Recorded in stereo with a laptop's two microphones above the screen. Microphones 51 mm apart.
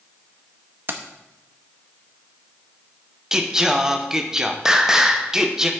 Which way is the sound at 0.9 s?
45° right (ahead or behind).